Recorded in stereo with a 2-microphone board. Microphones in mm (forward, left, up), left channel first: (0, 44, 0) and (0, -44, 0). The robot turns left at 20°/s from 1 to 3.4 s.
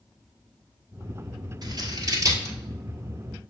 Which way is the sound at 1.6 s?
55° right (ahead or behind).